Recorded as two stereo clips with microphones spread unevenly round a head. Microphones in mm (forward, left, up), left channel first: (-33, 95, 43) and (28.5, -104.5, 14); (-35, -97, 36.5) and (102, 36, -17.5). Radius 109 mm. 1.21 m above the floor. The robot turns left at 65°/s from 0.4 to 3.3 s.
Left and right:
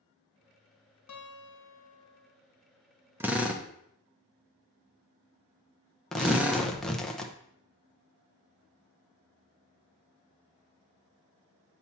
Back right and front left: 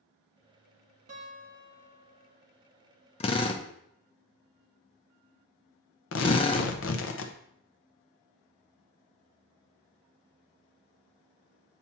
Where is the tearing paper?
160° right, 0.7 m.